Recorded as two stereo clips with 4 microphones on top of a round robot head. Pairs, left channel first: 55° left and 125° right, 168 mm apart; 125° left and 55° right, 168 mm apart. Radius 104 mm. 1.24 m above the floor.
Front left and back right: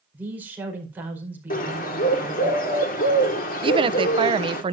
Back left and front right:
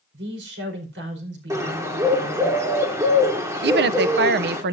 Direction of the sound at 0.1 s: 45° right.